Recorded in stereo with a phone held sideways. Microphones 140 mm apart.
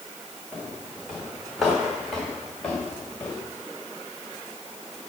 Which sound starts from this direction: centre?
Footsteps, at 0.5 s.